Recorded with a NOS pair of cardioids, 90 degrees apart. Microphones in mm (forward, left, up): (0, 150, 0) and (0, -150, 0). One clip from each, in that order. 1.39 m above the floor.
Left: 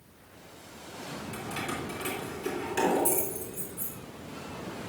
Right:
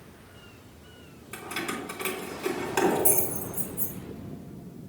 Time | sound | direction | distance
1.3 | keys jangling | 40° right | 3.5 m